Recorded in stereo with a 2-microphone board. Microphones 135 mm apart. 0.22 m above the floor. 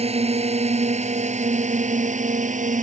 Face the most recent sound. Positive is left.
turn(degrees=-65)  # may be behind; listen again after turning